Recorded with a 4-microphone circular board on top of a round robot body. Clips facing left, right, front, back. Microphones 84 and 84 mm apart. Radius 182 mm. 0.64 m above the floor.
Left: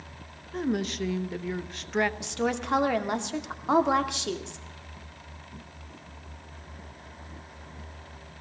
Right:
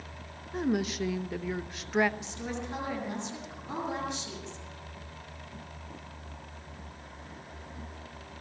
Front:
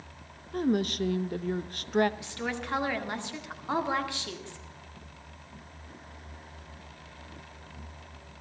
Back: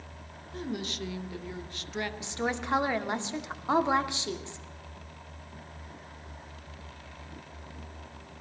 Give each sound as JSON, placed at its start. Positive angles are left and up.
{"t": 0.5, "sound": "a woman speaking", "azimuth_deg": -5, "distance_m": 1.3}
{"t": 2.2, "sound": "a woman speaking", "azimuth_deg": 110, "distance_m": 2.0}